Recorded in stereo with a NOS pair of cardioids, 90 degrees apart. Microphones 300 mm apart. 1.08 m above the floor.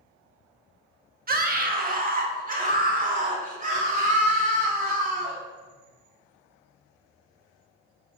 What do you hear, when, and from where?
1.3 s a scream: 30° right, 1.4 m; by 5.4 s 25° right, 3.5 m